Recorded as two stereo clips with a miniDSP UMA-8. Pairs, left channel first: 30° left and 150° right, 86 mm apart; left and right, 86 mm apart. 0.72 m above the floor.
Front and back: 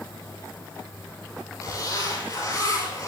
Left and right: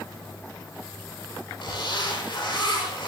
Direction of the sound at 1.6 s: 70° left.